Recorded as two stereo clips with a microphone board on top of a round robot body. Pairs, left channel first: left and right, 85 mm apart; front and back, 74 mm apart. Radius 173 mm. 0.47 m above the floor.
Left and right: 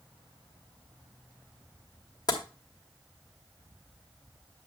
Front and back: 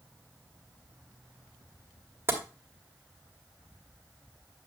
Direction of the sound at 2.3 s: 125° left.